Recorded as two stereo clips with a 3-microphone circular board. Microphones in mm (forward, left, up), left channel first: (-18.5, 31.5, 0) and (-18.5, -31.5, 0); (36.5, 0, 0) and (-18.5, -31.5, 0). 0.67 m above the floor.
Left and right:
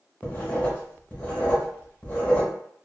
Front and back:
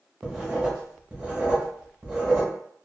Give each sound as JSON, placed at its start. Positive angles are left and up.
{"t": 0.2, "sound": "writing", "azimuth_deg": 145, "distance_m": 0.8}